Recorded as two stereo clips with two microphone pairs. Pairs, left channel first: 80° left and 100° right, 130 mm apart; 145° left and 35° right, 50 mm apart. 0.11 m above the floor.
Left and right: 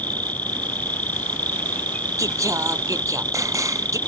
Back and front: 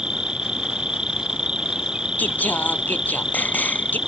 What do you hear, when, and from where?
0.0 s an insect: 20° left
2.2 s singing: 165° right